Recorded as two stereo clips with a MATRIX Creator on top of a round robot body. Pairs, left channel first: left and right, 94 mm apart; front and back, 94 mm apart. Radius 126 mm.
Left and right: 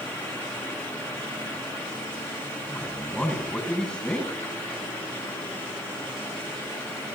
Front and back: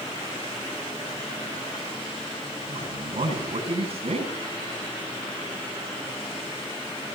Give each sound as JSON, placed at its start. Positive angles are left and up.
{"t": 2.7, "sound": "a man speaking", "azimuth_deg": 170, "distance_m": 9.5}